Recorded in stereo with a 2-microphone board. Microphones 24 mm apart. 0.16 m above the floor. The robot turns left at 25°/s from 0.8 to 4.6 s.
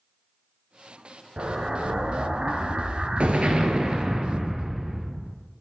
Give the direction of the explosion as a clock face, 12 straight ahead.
3 o'clock.